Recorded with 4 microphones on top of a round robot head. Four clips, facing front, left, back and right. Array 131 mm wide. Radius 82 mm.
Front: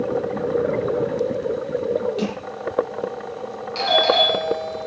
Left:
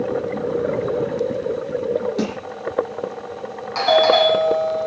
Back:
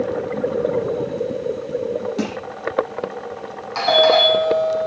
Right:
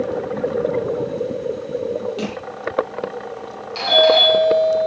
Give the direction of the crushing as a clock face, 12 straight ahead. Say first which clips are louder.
Left 2 dB, back 1 dB; 7 o'clock.